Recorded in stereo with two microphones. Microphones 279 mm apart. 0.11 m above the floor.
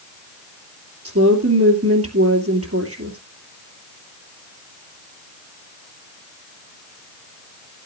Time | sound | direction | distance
1.1 | a woman speaking | 55° right (ahead or behind) | 2.5 m